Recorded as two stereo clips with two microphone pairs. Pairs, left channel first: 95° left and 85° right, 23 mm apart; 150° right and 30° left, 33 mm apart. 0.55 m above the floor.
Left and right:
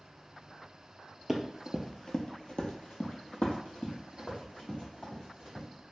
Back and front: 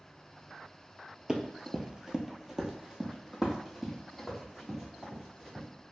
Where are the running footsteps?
10° right, 0.5 m; by 5.7 s 115° left, 2 m.